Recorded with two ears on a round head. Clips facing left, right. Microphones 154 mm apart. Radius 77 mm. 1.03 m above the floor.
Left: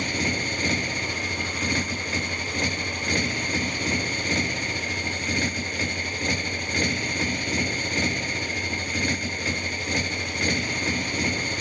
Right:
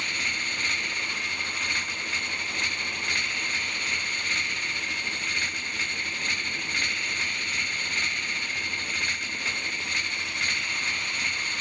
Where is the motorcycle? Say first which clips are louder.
Left 12 dB; 35° left (ahead or behind).